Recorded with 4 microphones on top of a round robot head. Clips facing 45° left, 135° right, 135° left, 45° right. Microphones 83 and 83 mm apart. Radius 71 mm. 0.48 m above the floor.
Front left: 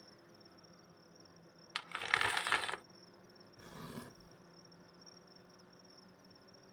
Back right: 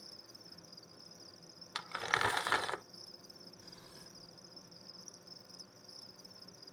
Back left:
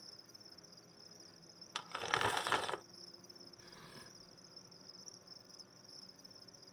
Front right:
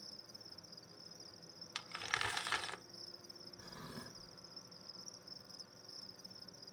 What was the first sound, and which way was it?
An insect, 130° right.